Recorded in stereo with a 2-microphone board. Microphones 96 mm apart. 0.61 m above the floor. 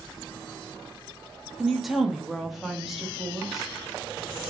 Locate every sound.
1.6 s a woman speaking: centre (ahead or behind), 0.6 m